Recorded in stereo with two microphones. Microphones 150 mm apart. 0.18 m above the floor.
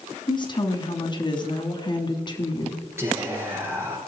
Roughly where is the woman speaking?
Left.